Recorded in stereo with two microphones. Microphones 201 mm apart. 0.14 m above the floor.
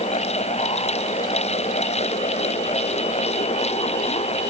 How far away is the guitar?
I don't hear a guitar.